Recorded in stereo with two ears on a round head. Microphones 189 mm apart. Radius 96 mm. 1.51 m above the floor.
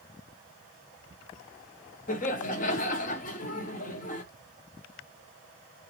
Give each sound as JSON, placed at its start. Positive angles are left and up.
{"t": 2.1, "sound": "laughter", "side_deg": 35, "distance_m": 0.9}